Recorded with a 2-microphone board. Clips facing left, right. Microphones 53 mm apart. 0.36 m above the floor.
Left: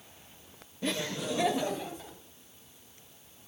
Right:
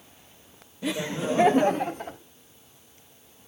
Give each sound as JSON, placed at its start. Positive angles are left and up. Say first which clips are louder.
{"t": 0.8, "sound": "laughter", "louder": "right 5 dB", "side_deg": -10, "distance_m": 1.0}